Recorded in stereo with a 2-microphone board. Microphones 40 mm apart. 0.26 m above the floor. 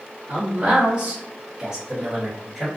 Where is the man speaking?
35° right (ahead or behind), 1.4 m; by 2.7 s centre (ahead or behind), 1.2 m.